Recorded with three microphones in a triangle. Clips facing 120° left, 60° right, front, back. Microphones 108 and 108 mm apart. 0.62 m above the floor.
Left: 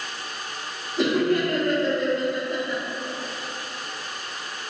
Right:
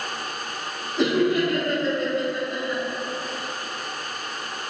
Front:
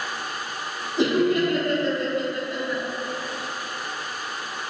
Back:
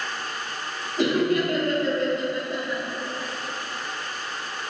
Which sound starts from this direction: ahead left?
Laughter, at 1.0 s.